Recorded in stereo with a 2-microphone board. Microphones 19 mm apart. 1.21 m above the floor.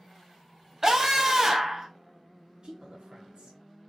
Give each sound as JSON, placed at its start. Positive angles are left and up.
{"t": 0.8, "sound": "a scream", "side_deg": -25, "distance_m": 0.7}
{"t": 2.6, "sound": "a woman speaking", "side_deg": -55, "distance_m": 0.9}